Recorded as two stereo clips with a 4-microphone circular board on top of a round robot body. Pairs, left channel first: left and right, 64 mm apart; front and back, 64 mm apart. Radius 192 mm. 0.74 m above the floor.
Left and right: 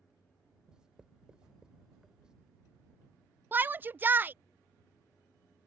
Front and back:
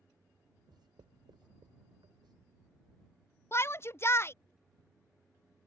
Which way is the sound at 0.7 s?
170° right.